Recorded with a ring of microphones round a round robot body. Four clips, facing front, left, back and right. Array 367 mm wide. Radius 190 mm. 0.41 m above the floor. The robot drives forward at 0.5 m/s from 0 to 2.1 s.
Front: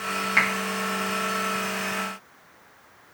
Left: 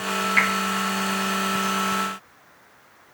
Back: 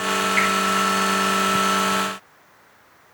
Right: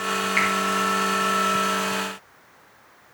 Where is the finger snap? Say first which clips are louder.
Left 1 dB, even; 10° left, 3 m.